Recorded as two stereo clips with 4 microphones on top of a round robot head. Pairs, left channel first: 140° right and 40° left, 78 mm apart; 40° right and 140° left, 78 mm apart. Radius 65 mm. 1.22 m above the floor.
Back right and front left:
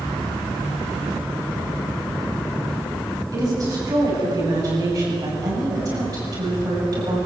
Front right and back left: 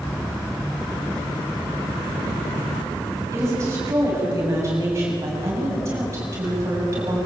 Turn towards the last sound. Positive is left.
turn(degrees=85)